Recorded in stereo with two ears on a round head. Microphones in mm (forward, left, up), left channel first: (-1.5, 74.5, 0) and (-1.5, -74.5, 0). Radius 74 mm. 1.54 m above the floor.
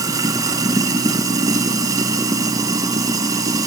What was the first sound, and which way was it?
Running water, 20° right (ahead or behind).